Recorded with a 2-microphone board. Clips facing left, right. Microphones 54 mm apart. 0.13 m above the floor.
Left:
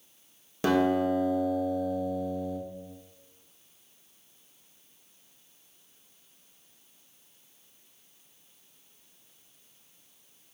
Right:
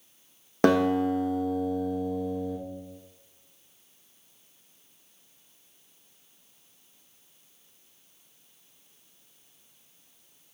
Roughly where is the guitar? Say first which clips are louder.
Right 2 dB; right.